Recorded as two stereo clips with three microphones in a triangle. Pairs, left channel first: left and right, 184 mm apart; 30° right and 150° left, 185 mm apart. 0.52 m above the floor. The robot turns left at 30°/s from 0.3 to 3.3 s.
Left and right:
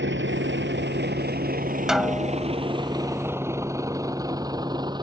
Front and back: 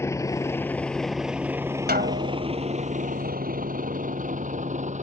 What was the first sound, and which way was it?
A vehicle, 105° right.